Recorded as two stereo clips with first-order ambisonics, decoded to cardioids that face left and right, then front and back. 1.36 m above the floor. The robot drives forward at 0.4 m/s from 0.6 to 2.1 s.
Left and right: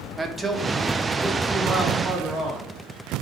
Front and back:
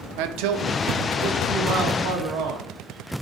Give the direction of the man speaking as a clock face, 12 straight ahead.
6 o'clock.